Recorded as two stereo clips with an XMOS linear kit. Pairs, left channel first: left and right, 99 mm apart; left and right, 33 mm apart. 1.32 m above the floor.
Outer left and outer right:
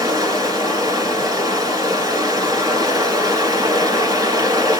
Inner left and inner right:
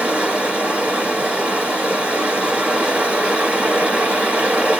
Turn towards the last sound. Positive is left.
turn(degrees=-40)  # may be behind; listen again after turning